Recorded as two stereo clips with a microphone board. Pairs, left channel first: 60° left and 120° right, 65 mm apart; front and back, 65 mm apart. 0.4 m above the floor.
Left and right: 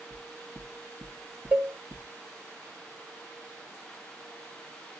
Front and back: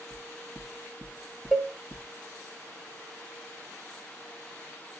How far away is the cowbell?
About 0.9 m.